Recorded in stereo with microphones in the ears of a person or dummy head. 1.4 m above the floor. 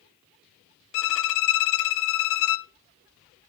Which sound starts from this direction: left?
A violin, at 0.9 s.